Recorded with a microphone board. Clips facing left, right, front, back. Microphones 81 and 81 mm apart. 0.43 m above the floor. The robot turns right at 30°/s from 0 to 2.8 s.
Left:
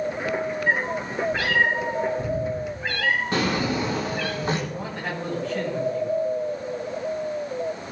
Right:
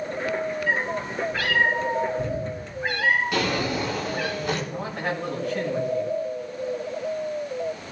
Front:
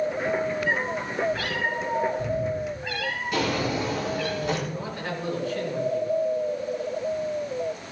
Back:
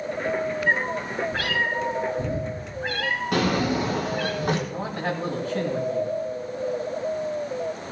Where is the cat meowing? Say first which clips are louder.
Left 1 dB, back 2 dB; 135° left, 4.5 m; by 4.3 s 160° right, 4.5 m.